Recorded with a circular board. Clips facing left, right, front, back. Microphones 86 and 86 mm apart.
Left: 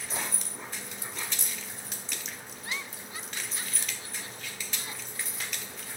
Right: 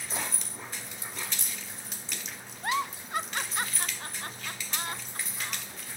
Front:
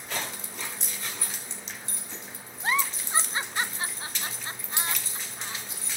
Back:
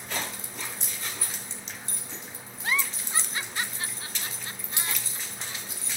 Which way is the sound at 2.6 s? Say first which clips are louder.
Right 10 dB, front 2 dB; 60° right.